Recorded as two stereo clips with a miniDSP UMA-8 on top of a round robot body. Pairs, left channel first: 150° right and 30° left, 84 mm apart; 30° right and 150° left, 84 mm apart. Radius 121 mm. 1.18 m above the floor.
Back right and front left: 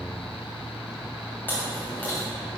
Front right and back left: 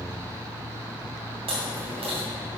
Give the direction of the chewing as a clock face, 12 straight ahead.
7 o'clock.